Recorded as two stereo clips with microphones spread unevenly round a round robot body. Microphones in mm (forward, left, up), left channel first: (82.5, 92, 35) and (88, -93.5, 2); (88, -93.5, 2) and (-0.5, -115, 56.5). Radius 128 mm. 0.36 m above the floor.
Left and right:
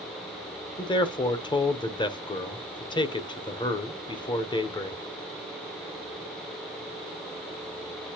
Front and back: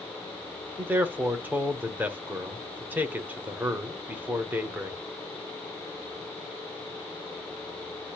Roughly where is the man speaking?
Ahead left.